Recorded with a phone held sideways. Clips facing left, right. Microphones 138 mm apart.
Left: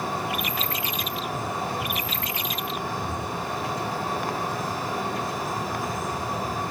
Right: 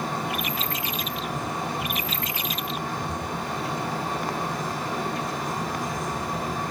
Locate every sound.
0.0 s a fan: 5° left (ahead or behind), 3.5 m